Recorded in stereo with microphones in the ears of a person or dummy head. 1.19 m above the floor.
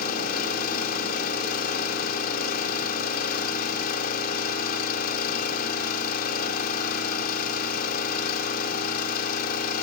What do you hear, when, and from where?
0.0 s an engine running: 50° left (ahead or behind), 2 m